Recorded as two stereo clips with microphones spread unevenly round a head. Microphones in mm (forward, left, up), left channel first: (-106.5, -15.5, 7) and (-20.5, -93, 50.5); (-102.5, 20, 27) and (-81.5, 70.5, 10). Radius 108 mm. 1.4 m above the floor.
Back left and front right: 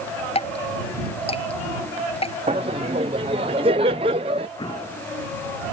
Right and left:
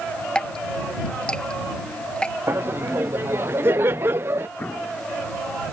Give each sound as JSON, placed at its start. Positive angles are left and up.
{"t": 0.3, "sound": "dripping", "azimuth_deg": 180}
{"t": 2.5, "sound": "laughter", "azimuth_deg": 20}
{"t": 4.6, "sound": "an explosion", "azimuth_deg": -170}